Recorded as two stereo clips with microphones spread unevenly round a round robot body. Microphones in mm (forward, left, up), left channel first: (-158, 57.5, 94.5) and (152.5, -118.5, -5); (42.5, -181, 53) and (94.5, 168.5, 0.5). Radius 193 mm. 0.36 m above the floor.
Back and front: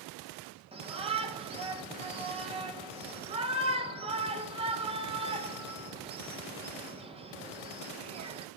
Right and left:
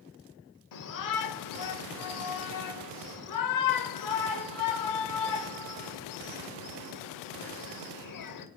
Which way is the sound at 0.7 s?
85° right.